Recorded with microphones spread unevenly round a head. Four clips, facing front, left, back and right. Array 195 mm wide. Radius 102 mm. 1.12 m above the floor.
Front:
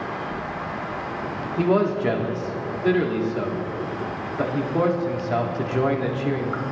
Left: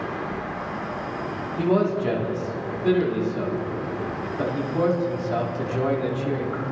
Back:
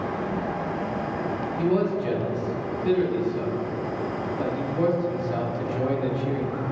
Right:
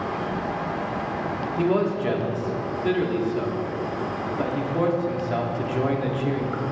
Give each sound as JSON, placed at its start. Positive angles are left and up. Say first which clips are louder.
{"t": 1.6, "sound": "a man speaking", "louder": "left 1 dB, front 4 dB", "azimuth_deg": -10, "distance_m": 2.5}